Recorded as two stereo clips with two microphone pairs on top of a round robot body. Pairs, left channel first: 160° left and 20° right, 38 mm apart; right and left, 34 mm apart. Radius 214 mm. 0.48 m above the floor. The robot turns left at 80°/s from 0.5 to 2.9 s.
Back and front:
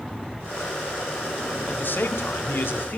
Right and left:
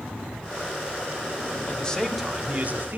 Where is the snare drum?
No snare drum in this recording.